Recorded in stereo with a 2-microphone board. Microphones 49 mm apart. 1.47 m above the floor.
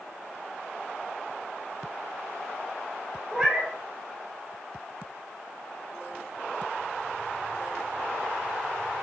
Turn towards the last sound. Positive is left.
turn(degrees=-5)  # may be behind; listen again after turning